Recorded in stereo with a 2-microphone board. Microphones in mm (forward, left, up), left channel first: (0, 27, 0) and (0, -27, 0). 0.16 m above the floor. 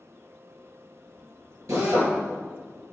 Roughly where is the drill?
Right.